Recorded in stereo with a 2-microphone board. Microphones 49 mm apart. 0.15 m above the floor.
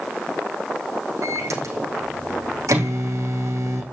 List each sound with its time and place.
1.2 s a microwave: 80° right, 5.5 m